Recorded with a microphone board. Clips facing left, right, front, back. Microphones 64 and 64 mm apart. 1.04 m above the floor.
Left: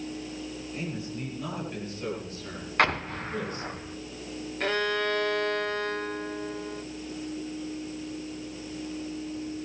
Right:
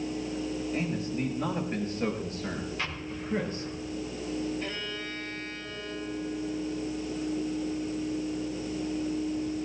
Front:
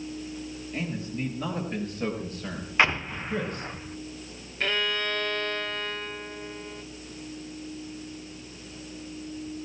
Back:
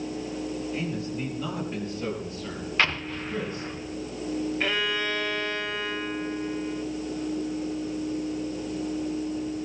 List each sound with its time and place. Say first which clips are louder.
0.7 s a man speaking: right 2 dB, back 2 dB; 45° right, 7 m; by 3.7 s 30° right, 5.5 m
2.8 s an explosion: left 9 dB, front 3 dB; 70° left, 0.6 m
4.6 s a violin: left 9 dB, front 4 dB; 95° left, 0.7 m